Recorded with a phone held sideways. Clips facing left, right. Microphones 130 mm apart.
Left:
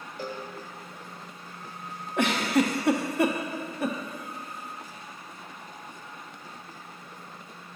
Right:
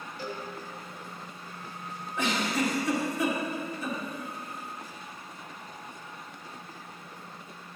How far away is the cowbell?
About 1.1 m.